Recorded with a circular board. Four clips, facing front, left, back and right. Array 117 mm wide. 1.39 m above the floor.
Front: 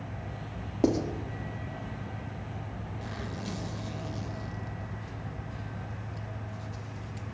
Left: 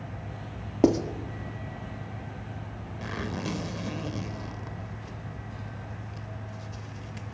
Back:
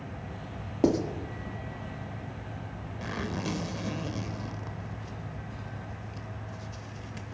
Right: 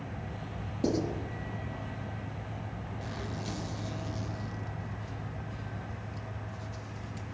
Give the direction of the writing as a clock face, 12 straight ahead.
9 o'clock.